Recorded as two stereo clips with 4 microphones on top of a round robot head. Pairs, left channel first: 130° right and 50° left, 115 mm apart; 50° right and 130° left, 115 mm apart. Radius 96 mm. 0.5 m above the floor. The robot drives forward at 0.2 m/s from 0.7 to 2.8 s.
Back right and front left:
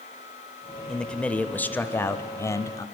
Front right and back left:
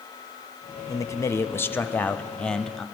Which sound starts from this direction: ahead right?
A man speaking, at 0.9 s.